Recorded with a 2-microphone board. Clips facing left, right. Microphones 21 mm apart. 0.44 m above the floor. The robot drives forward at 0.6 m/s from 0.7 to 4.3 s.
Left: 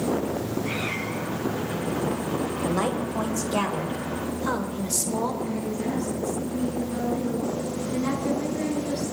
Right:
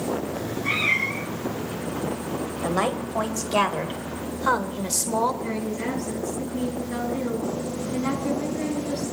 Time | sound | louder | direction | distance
0.3 | a cat meowing | right 3 dB | 55° right (ahead or behind) | 1.1 m
2.6 | a woman speaking | right 3 dB | 30° right (ahead or behind) | 2 m
5.4 | a woman speaking | even | 65° right (ahead or behind) | 5.5 m